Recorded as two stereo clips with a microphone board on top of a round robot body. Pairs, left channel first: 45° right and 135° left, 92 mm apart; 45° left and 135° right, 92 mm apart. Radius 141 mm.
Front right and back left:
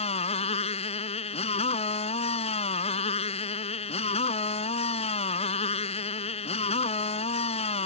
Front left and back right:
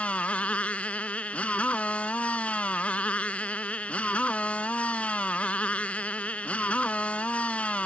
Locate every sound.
0.0 s a motorcycle: 35° right